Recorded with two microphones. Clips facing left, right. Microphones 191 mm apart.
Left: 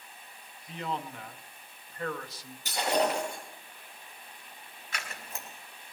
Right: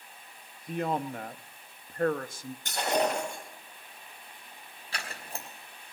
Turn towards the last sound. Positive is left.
turn(degrees=-35)  # may be behind; listen again after turning